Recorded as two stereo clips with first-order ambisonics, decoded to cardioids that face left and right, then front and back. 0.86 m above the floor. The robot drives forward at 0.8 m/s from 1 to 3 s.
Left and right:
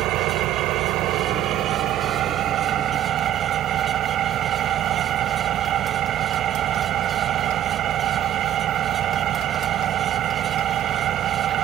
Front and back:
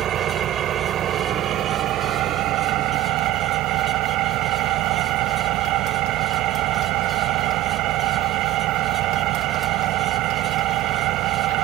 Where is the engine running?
125° right; by 11.6 s 145° right.